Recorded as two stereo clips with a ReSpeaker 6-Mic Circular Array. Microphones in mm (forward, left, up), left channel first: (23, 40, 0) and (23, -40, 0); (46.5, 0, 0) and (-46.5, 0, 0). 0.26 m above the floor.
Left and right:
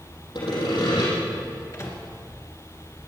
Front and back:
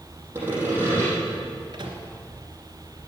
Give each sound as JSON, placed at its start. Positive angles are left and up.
{"t": 0.3, "sound": "sawing", "azimuth_deg": 115, "distance_m": 6.0}
{"t": 1.7, "sound": "a microwave", "azimuth_deg": 140, "distance_m": 2.5}